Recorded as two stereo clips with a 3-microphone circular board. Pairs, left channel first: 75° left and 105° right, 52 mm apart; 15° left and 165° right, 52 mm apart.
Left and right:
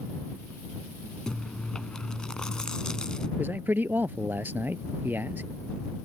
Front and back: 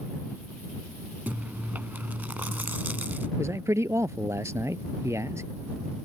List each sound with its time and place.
1.3 s chewing: 150° left
3.4 s a man speaking: 150° right